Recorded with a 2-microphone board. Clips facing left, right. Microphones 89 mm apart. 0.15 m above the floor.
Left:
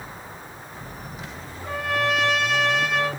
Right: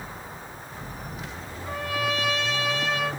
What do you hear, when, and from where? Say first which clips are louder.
1.6 s a trumpet: left 4 dB; 60° left (ahead or behind), 0.7 m